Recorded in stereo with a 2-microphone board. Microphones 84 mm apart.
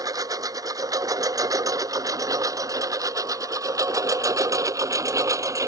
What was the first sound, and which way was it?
A lawn mower, 40° right (ahead or behind).